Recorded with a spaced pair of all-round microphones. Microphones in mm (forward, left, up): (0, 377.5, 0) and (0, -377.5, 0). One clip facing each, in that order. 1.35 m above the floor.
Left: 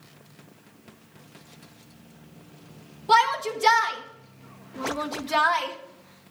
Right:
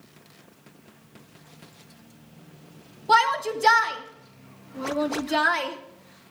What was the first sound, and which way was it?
A shout, 35° left (ahead or behind).